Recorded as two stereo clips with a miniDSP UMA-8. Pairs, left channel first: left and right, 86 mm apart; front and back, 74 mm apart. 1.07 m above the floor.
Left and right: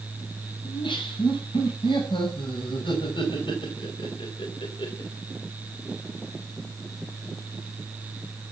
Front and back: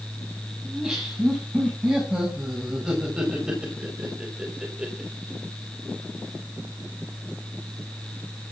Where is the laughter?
100° left, 7 m.